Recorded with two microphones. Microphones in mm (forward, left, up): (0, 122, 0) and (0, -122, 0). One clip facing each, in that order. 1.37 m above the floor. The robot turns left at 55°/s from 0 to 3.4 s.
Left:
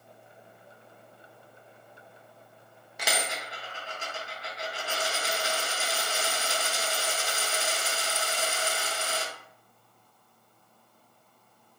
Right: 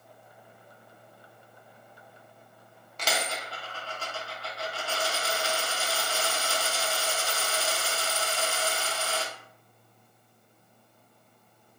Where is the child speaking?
No child speaking in this recording.